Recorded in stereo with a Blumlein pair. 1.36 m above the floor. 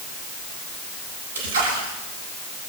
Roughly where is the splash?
Ahead right.